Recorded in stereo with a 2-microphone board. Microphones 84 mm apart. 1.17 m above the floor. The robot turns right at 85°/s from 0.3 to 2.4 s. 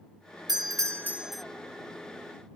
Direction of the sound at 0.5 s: 75° right.